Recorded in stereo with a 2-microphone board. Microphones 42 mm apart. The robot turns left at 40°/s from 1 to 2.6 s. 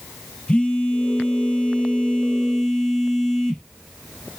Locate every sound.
0.5 s a phone buzzing: 25° left (ahead or behind), 0.6 m; by 3.7 s 10° left (ahead or behind), 0.6 m